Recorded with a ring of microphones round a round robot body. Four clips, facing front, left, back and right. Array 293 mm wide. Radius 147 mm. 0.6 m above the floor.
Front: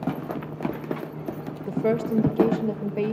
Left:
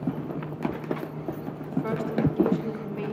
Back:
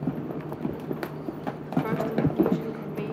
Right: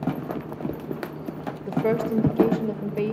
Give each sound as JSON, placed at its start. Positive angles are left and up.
{"t": 1.7, "sound": "a woman speaking", "azimuth_deg": -45, "distance_m": 2.0}